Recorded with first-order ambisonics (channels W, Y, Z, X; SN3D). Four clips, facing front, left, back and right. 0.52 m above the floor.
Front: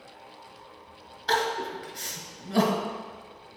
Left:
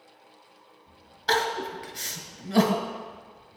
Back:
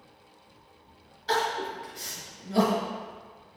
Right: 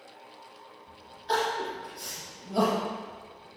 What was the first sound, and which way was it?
Crying, 65° left.